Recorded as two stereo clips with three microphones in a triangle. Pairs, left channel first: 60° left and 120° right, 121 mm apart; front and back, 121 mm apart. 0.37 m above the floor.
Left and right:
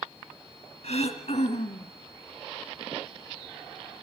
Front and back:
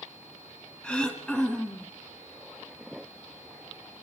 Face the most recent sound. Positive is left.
turn(degrees=80)